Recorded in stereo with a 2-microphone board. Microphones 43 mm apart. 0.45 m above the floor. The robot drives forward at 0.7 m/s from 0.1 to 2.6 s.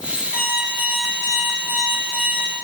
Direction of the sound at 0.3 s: 40° right (ahead or behind).